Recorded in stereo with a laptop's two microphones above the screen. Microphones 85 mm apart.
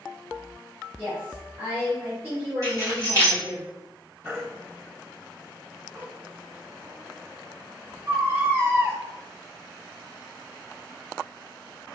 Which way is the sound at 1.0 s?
25° right (ahead or behind).